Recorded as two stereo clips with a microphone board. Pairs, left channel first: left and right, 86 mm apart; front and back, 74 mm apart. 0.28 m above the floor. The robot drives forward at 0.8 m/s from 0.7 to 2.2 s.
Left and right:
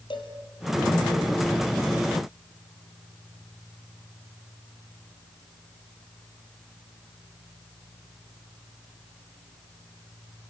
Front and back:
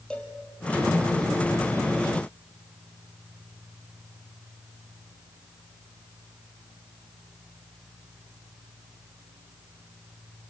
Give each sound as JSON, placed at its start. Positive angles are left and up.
{"t": 0.1, "sound": "a cowbell", "azimuth_deg": 75, "distance_m": 3.0}